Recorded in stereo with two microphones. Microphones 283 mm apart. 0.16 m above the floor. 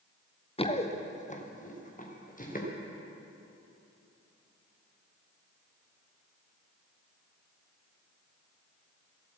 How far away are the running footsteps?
About 1.3 m.